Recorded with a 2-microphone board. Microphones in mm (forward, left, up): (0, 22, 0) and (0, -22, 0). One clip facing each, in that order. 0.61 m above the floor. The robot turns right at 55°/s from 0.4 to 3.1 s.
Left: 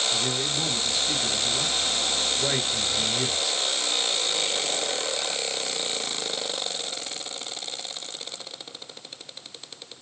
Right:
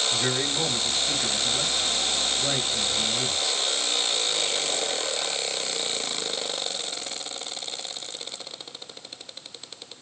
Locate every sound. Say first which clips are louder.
0.1 s a man speaking: right 1 dB; 60° right, 2.5 m; by 3.6 s 90° left, 2.5 m